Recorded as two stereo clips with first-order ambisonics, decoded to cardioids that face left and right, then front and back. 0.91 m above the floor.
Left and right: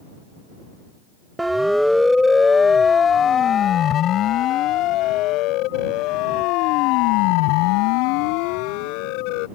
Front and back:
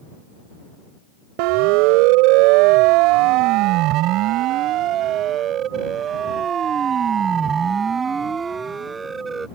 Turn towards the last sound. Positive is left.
turn(degrees=105)